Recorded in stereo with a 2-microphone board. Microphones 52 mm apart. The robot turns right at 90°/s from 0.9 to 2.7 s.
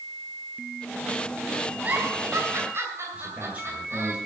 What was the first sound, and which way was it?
A giggle, 30° right (ahead or behind).